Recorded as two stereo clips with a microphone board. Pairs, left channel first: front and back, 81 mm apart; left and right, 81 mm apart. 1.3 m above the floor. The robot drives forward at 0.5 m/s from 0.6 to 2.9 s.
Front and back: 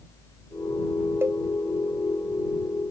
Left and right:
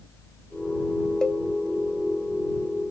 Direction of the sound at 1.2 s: 165° left.